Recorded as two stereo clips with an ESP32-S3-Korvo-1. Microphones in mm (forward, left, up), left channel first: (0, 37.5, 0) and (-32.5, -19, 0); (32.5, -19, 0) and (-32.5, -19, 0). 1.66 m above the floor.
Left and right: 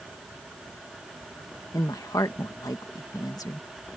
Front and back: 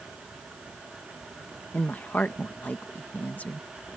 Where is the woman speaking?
60° left.